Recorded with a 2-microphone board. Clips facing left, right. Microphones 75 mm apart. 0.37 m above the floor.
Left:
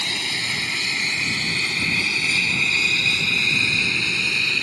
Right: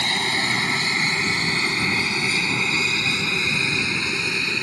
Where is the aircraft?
45° right (ahead or behind); by 4.6 s 20° right (ahead or behind).